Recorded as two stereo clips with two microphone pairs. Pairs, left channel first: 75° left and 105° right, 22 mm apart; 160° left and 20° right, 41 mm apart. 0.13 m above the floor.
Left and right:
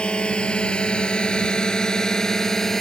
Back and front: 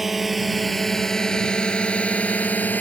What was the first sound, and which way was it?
A drone, 65° left.